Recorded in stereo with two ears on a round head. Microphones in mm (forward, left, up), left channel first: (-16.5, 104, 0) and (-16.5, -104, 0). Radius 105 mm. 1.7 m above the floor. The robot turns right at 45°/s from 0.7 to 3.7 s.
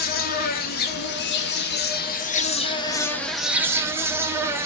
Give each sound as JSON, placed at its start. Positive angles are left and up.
{"t": 0.0, "sound": "an insect", "azimuth_deg": 60, "distance_m": 0.9}